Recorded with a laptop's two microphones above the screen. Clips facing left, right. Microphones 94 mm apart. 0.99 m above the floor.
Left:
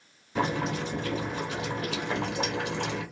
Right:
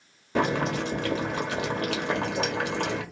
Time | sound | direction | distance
0.3 | boiling | 75° right (ahead or behind) | 1.7 m